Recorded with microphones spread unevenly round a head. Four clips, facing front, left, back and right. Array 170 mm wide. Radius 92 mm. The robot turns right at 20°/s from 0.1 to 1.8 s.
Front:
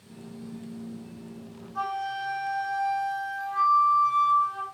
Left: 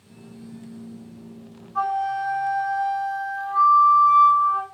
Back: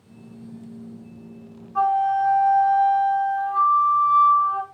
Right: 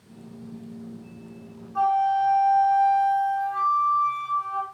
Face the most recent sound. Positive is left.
turn(degrees=-165)